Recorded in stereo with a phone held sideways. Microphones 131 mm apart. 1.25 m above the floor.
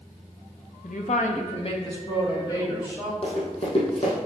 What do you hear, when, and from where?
0.8 s a woman speaking: 80° left, 0.9 m; by 3.1 s 25° left (ahead or behind), 3 m
3.2 s running footsteps: 55° left (ahead or behind), 3 m